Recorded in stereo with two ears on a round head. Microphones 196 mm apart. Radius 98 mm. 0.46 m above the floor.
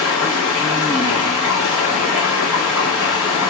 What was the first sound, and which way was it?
Running water, 5° right (ahead or behind).